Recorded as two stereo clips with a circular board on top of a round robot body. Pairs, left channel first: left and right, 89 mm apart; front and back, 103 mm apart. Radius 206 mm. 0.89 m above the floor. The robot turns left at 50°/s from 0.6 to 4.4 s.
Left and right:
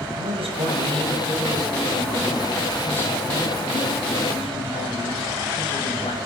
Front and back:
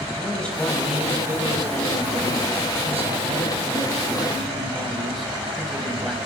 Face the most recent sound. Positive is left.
turn(degrees=90)